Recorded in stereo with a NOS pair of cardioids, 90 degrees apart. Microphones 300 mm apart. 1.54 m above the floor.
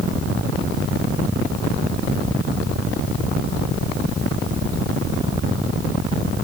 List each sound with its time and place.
Only background noise.